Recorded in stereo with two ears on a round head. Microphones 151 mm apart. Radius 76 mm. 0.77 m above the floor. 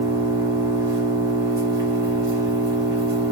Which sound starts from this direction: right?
An engine running, at 0.0 s.